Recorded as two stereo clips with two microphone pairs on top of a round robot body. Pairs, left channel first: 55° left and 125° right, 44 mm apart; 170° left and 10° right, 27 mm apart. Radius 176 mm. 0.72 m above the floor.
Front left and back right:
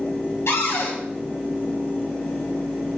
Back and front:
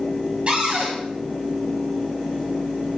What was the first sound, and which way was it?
A cupboard door, 45° left.